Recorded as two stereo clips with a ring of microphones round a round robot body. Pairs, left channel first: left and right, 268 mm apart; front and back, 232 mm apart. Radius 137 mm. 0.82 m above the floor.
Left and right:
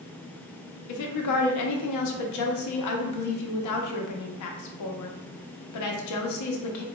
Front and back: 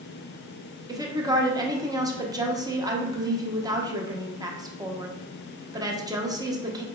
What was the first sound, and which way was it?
A woman speaking, 105° left.